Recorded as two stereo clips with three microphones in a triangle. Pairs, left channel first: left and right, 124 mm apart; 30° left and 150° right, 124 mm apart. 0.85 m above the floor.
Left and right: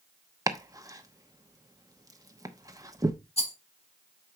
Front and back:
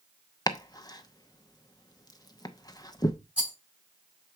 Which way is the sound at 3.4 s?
130° left.